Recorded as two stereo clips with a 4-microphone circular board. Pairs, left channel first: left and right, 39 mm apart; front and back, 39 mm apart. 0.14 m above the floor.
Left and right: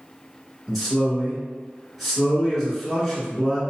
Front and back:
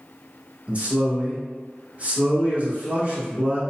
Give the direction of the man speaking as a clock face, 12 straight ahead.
6 o'clock.